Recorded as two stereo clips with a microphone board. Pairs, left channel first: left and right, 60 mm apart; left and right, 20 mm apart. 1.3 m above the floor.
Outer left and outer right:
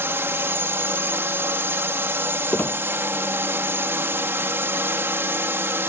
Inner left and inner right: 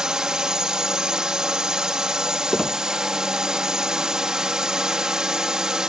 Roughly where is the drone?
Right.